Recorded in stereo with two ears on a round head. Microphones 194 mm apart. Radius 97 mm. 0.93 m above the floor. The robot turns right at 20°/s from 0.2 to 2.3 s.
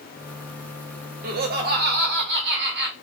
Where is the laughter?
45° right (ahead or behind), 1.1 m; by 2.9 s 55° right (ahead or behind), 1.1 m.